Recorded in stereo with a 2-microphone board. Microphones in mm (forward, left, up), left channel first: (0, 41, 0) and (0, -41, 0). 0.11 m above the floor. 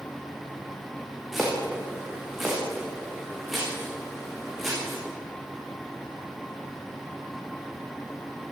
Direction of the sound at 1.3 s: 5° right (ahead or behind).